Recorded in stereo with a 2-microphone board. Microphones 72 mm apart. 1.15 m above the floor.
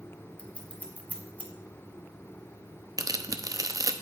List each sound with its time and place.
0.4 s scissors: 20° left (ahead or behind), 1.3 m
3.0 s tearing paper: 50° right (ahead or behind), 0.6 m